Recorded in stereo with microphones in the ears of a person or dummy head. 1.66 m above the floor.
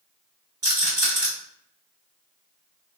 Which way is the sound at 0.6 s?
25° right (ahead or behind).